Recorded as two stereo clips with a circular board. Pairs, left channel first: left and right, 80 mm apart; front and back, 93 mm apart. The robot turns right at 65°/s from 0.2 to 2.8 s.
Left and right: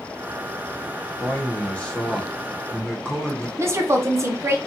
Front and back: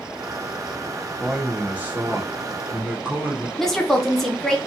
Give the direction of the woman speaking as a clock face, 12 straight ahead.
3 o'clock.